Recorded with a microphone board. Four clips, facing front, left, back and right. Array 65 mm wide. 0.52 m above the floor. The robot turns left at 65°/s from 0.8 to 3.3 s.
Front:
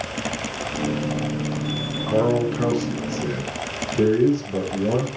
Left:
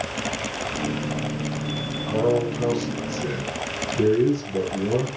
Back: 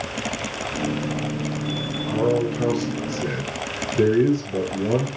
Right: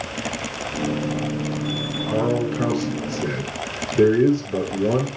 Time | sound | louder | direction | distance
2.1 | a man speaking | even, front 1 dB | 10° right | 7.5 m